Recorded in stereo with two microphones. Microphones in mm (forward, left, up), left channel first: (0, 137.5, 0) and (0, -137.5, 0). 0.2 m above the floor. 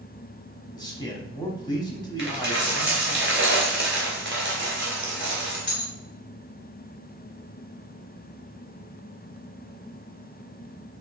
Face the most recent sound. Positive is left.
turn(degrees=-45)  # may be behind; listen again after turning